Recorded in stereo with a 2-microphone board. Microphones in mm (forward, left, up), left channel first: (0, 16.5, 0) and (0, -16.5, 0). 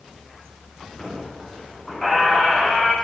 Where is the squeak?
10° left (ahead or behind), 6.5 m.